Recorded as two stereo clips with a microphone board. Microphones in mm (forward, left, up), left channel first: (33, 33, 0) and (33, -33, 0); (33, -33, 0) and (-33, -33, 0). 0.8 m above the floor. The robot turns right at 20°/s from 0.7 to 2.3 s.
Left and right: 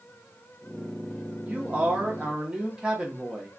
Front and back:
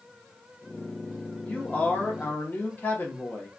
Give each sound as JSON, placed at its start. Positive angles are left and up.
{"t": 1.4, "sound": "a man speaking", "azimuth_deg": -45, "distance_m": 0.7}